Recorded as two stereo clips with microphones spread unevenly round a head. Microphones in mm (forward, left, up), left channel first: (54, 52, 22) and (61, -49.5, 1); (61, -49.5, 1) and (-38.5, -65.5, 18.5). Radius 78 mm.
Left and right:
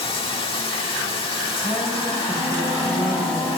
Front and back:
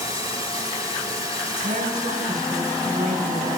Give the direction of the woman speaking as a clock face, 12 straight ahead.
7 o'clock.